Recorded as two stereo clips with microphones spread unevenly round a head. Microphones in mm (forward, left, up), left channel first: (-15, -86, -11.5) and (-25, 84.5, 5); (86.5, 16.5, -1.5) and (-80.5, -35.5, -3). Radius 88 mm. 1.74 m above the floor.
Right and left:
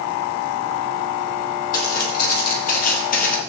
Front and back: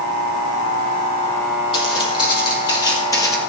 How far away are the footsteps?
About 4 m.